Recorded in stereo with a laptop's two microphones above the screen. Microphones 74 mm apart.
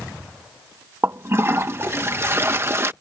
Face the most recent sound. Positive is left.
turn(degrees=-35)  # may be behind; listen again after turning